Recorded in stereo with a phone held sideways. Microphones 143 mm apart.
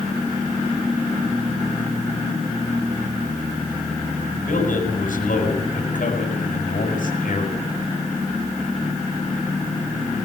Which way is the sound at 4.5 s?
65° left (ahead or behind).